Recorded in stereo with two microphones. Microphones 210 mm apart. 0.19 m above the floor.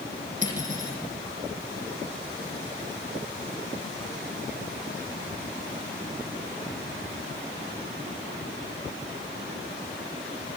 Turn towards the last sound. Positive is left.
turn(degrees=-35)  # may be behind; listen again after turning